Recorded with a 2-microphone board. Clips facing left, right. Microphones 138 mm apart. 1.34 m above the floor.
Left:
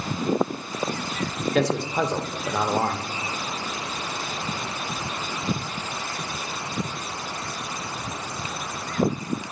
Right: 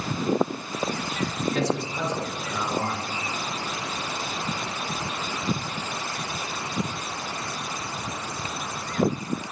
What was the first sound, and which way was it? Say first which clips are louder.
A man speaking: left 6 dB; 65° left (ahead or behind).